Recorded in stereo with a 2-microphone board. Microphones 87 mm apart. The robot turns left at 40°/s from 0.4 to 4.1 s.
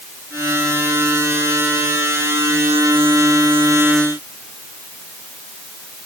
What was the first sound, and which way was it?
Only background noise.